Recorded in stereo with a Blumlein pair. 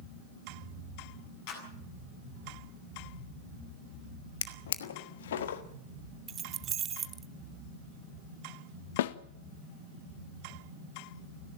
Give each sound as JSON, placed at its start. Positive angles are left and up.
{"t": 1.5, "sound": "a clap", "azimuth_deg": 45, "distance_m": 8.0}
{"t": 4.4, "sound": "a drawer", "azimuth_deg": 60, "distance_m": 1.3}
{"t": 6.3, "sound": "keys jangling", "azimuth_deg": -25, "distance_m": 0.6}
{"t": 9.0, "sound": "a snare drum", "azimuth_deg": 55, "distance_m": 0.9}